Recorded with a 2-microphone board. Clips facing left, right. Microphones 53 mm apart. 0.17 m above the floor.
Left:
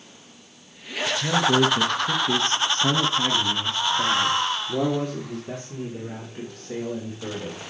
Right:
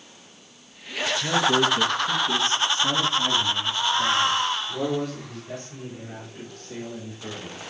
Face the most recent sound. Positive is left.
turn(degrees=70)  # may be behind; listen again after turning